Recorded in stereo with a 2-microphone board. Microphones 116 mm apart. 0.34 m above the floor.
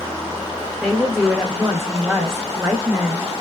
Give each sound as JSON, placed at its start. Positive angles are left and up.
{"t": 0.8, "sound": "a woman speaking", "side_deg": -5, "distance_m": 1.0}